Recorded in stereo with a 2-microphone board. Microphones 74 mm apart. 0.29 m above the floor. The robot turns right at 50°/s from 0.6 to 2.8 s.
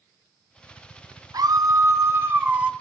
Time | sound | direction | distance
1.3 | a scream | 85° right | 2 m